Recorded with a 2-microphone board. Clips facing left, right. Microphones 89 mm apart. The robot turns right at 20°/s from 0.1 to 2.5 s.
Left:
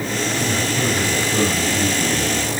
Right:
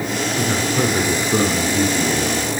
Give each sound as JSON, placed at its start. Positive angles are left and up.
{"t": 0.4, "sound": "a man speaking", "azimuth_deg": -115, "distance_m": 8.0}